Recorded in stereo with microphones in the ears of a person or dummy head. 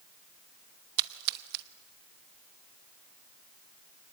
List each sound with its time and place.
1.0 s a splash: 55° right (ahead or behind), 1.1 m